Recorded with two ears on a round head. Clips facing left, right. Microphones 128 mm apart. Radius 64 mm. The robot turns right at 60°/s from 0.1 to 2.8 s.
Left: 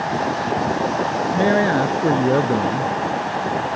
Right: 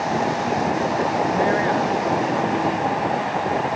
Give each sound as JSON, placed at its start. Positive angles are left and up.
{"t": 1.3, "sound": "a man speaking", "azimuth_deg": 40}